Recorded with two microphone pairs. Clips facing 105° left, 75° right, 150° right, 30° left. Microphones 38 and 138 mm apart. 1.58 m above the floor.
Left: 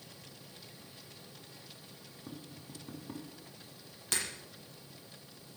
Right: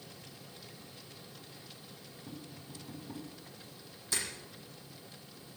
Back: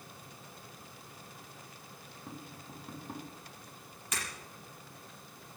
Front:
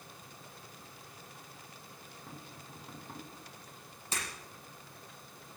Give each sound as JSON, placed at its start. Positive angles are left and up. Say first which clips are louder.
{"t": 2.3, "sound": "tapping", "louder": "even, back 4 dB", "azimuth_deg": 135, "distance_m": 4.5}
{"t": 4.1, "sound": "breaking glass", "louder": "left 1 dB, even", "azimuth_deg": 90, "distance_m": 9.0}